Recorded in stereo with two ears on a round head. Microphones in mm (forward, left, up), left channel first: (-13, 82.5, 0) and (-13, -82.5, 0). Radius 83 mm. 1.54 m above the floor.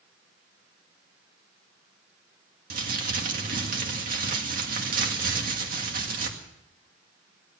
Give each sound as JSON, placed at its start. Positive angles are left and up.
{"t": 2.7, "sound": "crumpling", "side_deg": -45, "distance_m": 2.0}